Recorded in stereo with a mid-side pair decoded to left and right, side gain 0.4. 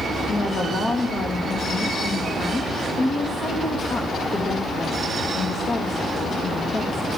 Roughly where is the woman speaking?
Ahead left.